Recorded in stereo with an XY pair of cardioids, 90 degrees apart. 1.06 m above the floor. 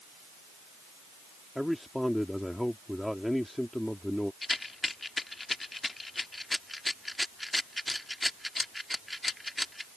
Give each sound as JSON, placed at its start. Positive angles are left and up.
{"t": 1.6, "sound": "a man speaking", "azimuth_deg": 5}
{"t": 4.4, "sound": "a rattle", "azimuth_deg": 20}